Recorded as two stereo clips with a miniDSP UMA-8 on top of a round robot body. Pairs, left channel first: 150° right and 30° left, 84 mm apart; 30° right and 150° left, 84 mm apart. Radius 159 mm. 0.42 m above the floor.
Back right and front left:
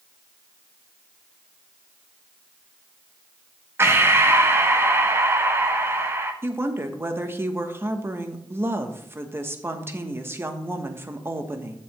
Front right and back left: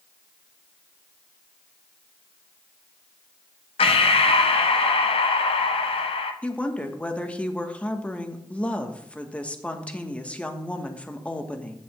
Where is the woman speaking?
30° left, 1.4 m.